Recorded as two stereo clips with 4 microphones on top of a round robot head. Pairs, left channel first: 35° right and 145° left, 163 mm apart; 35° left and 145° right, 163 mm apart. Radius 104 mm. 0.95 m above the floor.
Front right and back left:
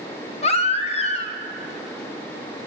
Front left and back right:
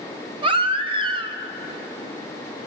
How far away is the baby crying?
About 2 m.